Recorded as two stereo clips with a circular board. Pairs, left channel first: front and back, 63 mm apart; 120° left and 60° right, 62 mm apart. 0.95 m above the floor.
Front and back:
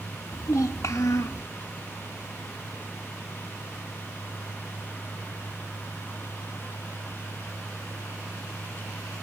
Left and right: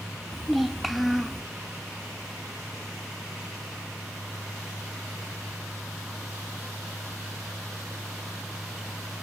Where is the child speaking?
30° left, 0.5 m.